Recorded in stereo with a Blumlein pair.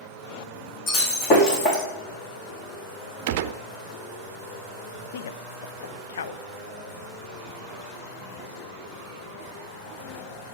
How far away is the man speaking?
About 0.7 m.